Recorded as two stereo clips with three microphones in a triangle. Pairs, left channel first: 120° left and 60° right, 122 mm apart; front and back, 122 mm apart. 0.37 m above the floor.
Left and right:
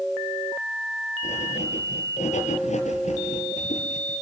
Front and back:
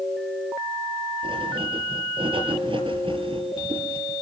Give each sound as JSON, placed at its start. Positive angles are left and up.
{"t": 1.2, "sound": "writing", "azimuth_deg": 135, "distance_m": 5.5}